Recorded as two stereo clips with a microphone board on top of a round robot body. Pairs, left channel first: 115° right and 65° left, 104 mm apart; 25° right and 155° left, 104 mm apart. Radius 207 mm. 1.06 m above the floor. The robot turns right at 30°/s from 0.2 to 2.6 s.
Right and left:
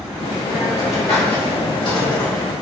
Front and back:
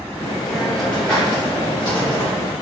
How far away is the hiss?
About 2.5 m.